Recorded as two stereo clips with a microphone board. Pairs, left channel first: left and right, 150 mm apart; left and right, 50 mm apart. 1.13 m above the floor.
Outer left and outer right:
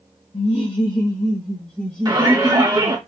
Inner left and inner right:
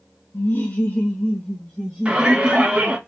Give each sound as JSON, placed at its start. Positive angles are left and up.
{"t": 0.3, "sound": "laughter", "side_deg": 50, "distance_m": 1.6}
{"t": 2.0, "sound": "a shout", "side_deg": -25, "distance_m": 3.0}